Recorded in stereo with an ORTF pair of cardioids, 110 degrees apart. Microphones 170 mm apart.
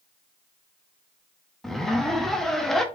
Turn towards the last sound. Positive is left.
turn(degrees=0)